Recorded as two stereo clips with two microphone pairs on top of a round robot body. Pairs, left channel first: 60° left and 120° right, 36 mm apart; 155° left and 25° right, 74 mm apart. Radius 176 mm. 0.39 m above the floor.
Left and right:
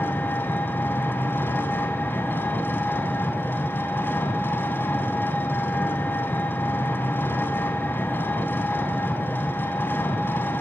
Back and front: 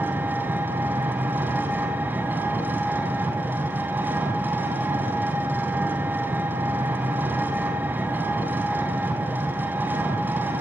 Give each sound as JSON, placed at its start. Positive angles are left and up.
{"t": 0.0, "sound": "an engine running", "azimuth_deg": 40, "distance_m": 3.5}